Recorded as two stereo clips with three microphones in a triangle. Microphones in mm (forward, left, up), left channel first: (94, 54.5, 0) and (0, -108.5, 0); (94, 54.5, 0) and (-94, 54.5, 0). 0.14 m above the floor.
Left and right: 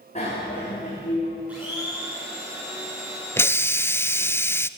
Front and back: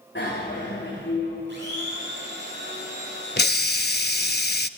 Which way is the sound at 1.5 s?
160° left.